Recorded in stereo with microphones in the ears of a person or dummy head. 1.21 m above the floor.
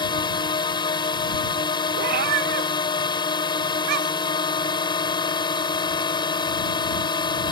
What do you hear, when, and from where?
0.0 s a drone: 25° left (ahead or behind)
2.0 s a cat meowing: 55° right (ahead or behind)